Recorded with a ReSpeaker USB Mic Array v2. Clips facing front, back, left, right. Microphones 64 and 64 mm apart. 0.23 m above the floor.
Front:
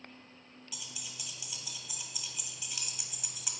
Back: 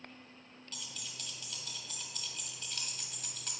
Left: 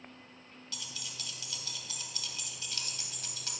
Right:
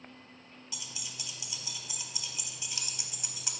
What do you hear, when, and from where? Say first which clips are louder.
0.7 s keys jangling: even, left 1 dB; 60° right, 0.7 m